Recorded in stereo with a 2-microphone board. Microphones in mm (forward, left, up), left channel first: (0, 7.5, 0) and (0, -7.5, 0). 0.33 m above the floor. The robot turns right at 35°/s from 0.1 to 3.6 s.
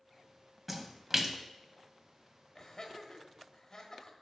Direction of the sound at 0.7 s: 10° right (ahead or behind).